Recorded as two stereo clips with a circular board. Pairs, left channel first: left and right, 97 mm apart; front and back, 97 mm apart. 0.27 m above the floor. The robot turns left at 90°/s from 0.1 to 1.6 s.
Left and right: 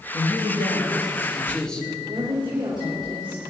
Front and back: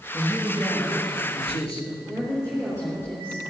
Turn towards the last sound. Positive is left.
turn(degrees=-65)